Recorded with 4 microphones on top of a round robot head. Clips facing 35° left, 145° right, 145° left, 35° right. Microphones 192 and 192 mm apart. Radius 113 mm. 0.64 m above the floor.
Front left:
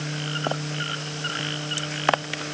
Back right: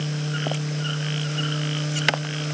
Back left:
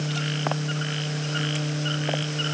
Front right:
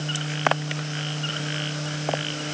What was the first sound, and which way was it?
Only background noise.